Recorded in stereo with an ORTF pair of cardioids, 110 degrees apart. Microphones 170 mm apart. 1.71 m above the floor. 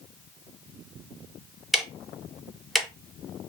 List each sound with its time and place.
1.7 s ticking: straight ahead, 0.6 m